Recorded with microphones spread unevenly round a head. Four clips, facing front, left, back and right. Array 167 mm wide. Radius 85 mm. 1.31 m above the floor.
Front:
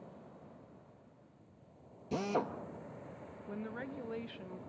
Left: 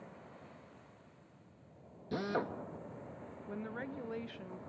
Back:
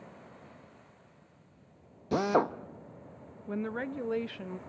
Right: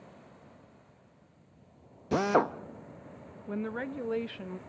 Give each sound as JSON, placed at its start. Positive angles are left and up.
{"t": 2.1, "sound": "a drill", "azimuth_deg": -120, "distance_m": 0.7}
{"t": 3.5, "sound": "a woman speaking", "azimuth_deg": -135, "distance_m": 0.5}